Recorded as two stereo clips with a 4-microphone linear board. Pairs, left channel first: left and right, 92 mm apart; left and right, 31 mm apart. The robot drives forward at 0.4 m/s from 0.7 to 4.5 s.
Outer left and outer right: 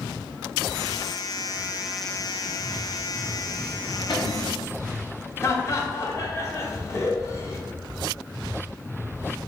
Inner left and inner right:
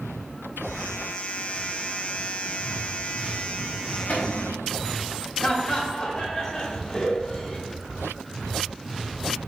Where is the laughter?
35° left (ahead or behind), 0.8 m.